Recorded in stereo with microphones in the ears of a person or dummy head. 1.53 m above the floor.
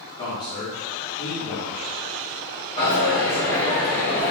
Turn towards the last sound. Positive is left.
turn(degrees=25)  # may be behind; listen again after turning